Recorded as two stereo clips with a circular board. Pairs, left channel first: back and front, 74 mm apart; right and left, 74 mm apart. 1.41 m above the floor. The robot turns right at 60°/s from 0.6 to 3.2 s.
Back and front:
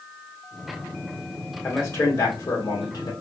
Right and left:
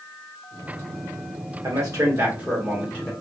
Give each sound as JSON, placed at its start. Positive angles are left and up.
{"t": 1.6, "sound": "a man speaking", "azimuth_deg": 115, "distance_m": 1.4}